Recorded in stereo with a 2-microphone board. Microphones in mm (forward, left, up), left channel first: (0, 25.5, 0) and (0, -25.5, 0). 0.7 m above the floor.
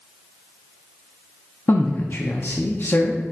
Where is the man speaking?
45° left (ahead or behind), 0.8 m.